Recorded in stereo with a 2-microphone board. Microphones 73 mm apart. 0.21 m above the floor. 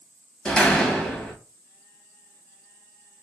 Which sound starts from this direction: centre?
A door slam, at 0.5 s.